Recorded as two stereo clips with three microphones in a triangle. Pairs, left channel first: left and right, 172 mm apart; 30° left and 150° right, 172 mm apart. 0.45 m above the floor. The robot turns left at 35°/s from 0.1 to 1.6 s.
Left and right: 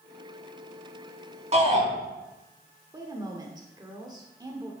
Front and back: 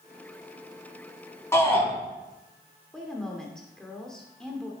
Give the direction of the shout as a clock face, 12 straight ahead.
1 o'clock.